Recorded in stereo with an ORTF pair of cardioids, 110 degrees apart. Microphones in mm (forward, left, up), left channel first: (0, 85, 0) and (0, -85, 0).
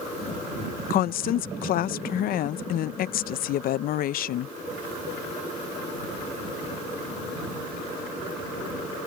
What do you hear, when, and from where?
0.9 s a woman speaking: 65° left